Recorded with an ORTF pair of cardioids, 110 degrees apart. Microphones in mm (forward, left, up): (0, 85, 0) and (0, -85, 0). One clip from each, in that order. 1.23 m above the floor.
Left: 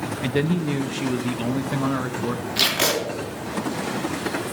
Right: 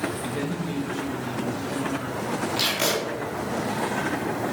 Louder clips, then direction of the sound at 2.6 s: Left 4 dB; 40° left.